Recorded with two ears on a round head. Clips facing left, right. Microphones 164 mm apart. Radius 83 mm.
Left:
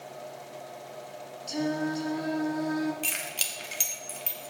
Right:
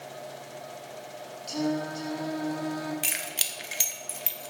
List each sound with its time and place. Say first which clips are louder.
1.5 s singing: even; 5° left (ahead or behind), 1.8 m
3.0 s keys jangling: even; 10° right (ahead or behind), 1.1 m